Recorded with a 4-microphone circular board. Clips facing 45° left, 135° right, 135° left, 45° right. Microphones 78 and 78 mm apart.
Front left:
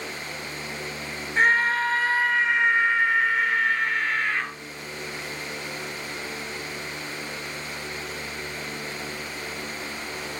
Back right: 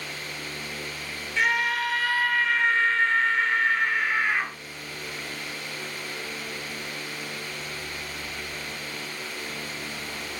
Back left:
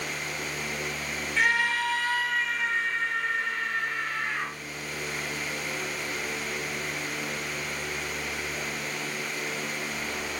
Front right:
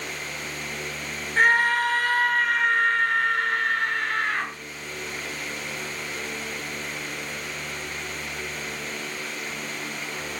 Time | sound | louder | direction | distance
1.4 | a scream | front left 4 dB, front right 6 dB | 5° right | 3.5 m